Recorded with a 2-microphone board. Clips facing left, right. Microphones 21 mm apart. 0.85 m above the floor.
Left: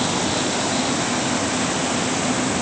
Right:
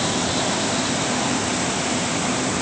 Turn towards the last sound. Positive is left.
No sound to turn to.